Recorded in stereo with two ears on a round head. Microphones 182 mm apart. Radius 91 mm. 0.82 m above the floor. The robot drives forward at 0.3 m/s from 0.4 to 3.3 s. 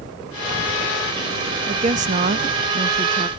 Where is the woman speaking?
35° right (ahead or behind), 0.6 m.